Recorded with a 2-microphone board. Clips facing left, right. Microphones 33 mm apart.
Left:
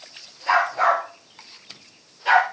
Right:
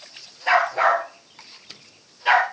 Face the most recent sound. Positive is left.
turn(degrees=-15)  # may be behind; listen again after turning